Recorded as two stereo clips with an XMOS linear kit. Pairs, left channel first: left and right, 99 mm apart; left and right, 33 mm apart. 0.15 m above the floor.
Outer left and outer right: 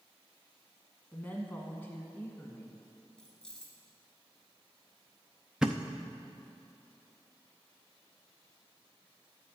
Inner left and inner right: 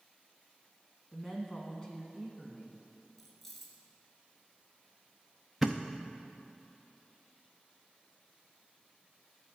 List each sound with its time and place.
1.1 s a woman speaking: 20° left (ahead or behind), 1.1 m
3.2 s keys jangling: 10° left (ahead or behind), 1.6 m
5.6 s a thud: 5° right (ahead or behind), 0.8 m